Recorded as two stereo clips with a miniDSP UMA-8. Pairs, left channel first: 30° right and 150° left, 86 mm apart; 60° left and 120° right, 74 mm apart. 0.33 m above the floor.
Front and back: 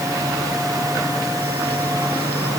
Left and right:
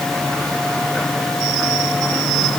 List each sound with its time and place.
Only background noise.